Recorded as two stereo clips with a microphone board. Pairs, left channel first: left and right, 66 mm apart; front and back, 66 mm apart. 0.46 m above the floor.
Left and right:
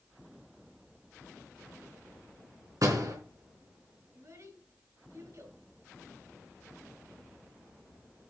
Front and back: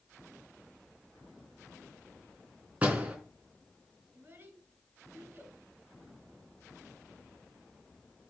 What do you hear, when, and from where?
2.8 s a door slam: 110° right, 3.5 m
4.1 s a child speaking: 125° right, 4.5 m